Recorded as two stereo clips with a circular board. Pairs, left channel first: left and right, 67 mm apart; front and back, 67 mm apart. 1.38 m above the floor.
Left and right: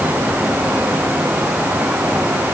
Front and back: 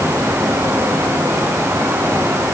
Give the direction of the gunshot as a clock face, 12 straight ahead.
No gunshot in this recording.